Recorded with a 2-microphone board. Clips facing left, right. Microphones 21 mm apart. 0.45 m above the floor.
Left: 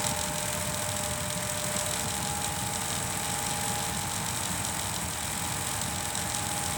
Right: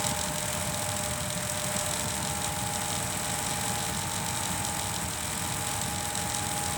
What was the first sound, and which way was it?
Only background noise.